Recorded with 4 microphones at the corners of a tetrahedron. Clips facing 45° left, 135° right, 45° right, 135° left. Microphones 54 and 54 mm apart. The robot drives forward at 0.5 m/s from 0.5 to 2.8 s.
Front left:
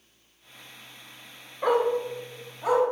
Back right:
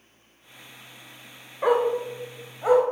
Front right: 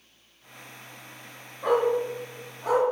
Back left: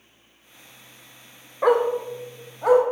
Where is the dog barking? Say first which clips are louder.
Back right 2 dB, back left 3 dB; 150° left, 0.9 m; by 2.8 s 165° left, 1.4 m.